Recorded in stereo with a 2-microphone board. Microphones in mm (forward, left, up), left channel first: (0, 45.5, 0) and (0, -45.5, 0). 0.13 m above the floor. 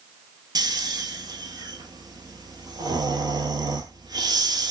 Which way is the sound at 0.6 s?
45° right (ahead or behind).